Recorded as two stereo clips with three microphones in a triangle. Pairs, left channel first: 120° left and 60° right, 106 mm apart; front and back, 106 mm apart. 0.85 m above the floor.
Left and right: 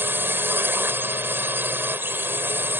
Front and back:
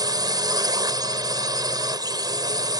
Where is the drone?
130° right.